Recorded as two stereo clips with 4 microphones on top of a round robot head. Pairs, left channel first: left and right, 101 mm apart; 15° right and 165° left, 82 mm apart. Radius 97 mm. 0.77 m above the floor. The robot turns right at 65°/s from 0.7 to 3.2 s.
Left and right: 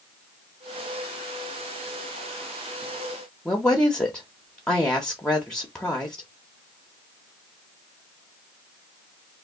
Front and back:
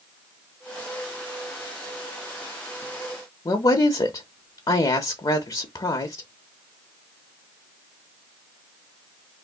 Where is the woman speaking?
10° left, 0.6 m.